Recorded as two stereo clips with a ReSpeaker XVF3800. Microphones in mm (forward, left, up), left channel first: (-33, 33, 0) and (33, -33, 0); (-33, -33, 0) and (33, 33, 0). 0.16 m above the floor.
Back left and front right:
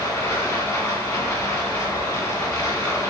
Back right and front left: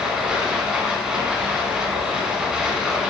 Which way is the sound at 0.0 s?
120° left.